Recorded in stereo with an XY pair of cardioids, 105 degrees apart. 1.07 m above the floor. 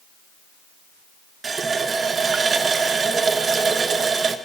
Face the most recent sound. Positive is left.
turn(degrees=-40)